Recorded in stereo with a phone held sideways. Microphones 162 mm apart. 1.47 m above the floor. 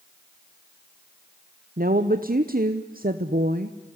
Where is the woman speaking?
60° right (ahead or behind), 1.0 m.